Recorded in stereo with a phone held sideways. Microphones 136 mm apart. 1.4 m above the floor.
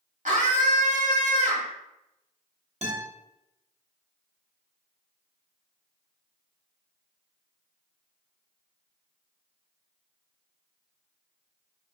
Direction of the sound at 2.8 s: 55° right (ahead or behind).